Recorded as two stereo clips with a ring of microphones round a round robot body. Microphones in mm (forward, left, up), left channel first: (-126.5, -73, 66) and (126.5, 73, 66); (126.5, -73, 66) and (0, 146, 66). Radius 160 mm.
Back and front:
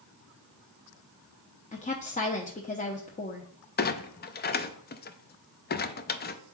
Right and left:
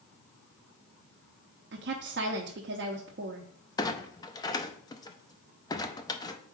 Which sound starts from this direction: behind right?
A clunk, at 3.8 s.